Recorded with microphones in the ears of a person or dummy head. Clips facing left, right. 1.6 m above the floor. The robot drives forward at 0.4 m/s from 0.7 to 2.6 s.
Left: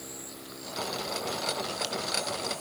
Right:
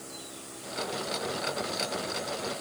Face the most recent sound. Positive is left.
No sound to turn to.